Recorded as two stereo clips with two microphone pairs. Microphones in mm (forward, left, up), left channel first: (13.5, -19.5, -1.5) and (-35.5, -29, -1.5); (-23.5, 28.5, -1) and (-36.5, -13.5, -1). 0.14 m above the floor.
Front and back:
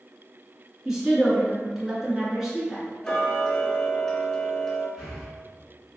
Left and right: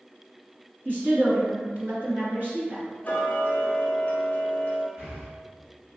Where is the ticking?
85° left, 0.9 m.